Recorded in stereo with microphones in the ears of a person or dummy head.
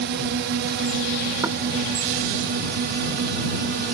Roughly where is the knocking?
Centre.